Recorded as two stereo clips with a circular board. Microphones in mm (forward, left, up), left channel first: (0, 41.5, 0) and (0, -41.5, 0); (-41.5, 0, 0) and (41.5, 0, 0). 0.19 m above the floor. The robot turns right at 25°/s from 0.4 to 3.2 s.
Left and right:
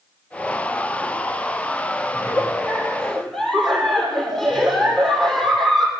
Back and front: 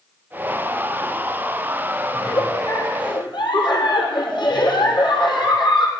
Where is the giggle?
145° left, 3 m; by 5.9 s 175° left, 3 m.